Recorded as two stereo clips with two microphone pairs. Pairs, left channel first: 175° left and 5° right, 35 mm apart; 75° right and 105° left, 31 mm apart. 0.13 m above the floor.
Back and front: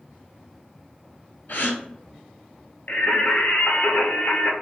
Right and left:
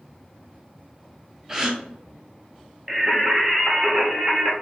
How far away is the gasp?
About 0.7 m.